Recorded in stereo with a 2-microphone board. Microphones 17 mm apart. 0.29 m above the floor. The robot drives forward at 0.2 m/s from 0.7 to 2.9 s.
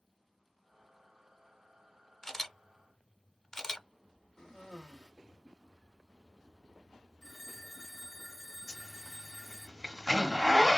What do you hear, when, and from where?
2.2 s a camera shutter: 30° left (ahead or behind), 0.7 m; by 3.9 s 35° left (ahead or behind), 0.6 m
4.4 s a cough: 20° left (ahead or behind), 1.5 m
7.2 s a phone ringing: 20° left (ahead or behind), 0.6 m
8.7 s a zipper: 10° left (ahead or behind), 1.1 m